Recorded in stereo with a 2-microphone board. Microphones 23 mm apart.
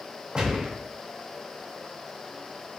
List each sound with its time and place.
0.3 s a gunshot: 35° right (ahead or behind), 0.5 m